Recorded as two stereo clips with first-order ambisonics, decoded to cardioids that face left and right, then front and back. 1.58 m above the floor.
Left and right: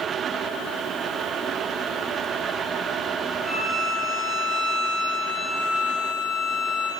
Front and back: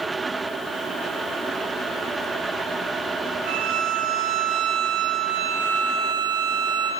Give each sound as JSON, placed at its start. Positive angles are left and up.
{"t": 3.5, "sound": "a violin", "azimuth_deg": -175, "distance_m": 3.5}